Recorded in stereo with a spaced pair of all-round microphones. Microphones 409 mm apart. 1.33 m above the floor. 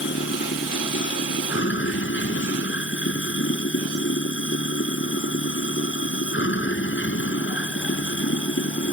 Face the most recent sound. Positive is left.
turn(degrees=30)  # may be behind; listen again after turning